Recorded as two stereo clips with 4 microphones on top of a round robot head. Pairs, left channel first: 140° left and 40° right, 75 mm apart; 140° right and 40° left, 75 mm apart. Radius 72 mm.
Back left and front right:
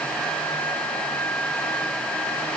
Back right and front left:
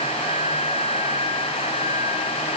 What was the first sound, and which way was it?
Only background noise.